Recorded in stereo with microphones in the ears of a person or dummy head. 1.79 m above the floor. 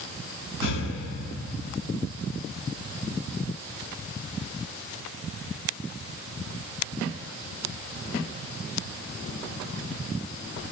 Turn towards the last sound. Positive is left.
turn(degrees=80)